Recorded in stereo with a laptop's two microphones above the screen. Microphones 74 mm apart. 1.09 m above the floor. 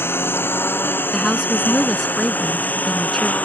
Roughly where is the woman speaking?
Centre.